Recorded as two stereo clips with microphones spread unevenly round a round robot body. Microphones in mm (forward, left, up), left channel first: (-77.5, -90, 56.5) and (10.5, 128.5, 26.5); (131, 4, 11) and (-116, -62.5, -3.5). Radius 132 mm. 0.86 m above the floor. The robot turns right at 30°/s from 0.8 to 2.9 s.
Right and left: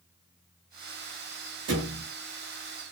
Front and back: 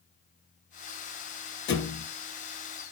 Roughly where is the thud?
Ahead left.